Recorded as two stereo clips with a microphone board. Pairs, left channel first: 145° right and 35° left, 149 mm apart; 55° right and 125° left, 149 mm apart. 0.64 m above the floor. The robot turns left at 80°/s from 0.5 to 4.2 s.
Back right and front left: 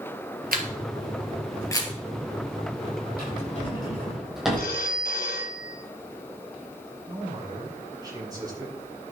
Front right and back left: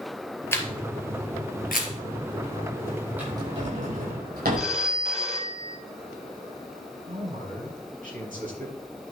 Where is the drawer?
155° right, 8 m; by 4.7 s 120° left, 8 m.